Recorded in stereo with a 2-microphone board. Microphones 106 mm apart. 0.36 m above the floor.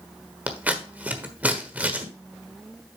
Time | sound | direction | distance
0.5 | scissors | 15° right (ahead or behind) | 1.3 m